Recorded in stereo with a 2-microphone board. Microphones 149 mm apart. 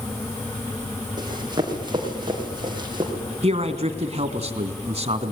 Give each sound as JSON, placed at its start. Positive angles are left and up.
{"t": 1.2, "sound": "running footsteps", "side_deg": -30, "distance_m": 7.0}
{"t": 3.4, "sound": "a man speaking", "side_deg": -45, "distance_m": 2.0}